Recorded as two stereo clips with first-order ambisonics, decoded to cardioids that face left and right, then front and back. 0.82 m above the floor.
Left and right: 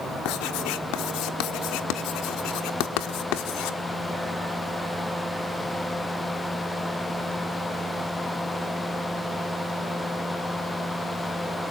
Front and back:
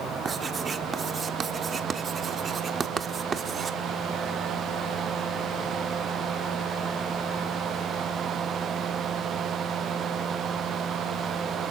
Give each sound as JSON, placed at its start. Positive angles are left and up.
{"t": 0.2, "sound": "writing", "azimuth_deg": 115, "distance_m": 1.4}